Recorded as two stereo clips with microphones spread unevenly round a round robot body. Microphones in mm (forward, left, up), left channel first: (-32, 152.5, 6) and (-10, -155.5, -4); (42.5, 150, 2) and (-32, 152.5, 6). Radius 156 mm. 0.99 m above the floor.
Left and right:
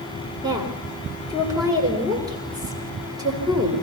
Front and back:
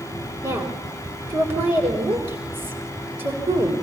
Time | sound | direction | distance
0.4 | a woman speaking | 165° right | 4 m